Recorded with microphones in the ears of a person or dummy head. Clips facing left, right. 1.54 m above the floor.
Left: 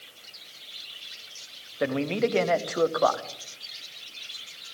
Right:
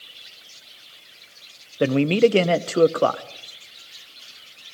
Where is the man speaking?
40° right (ahead or behind), 0.8 m.